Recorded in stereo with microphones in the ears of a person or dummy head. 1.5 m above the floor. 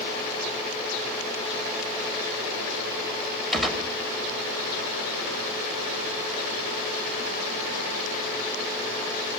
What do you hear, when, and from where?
3.5 s a gunshot: centre (ahead or behind), 2.5 m